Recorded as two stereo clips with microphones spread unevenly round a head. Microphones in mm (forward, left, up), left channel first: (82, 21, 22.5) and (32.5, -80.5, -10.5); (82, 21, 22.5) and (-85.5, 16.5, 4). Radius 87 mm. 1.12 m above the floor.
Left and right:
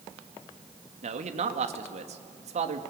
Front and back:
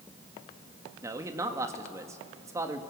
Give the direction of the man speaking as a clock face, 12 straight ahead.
3 o'clock.